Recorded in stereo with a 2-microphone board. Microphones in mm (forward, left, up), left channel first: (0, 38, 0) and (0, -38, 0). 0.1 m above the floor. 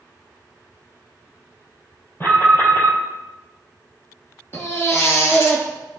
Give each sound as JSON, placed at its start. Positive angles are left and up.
{"t": 2.2, "sound": "an alarm", "side_deg": 35, "distance_m": 3.5}
{"t": 4.5, "sound": "a baby crying", "side_deg": 35, "distance_m": 1.7}